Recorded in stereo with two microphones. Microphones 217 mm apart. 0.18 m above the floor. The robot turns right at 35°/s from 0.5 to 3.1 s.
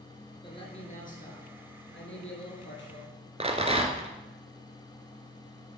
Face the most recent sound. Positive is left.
turn(degrees=-30)  # may be behind; listen again after turning